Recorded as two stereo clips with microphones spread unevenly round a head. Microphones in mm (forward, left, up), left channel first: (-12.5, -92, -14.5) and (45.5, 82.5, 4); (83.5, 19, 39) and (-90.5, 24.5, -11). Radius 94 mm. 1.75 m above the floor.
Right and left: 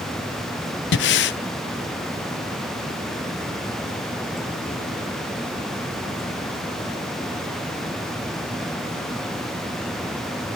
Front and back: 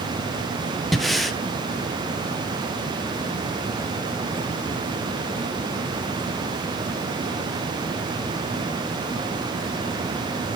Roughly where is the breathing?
Right.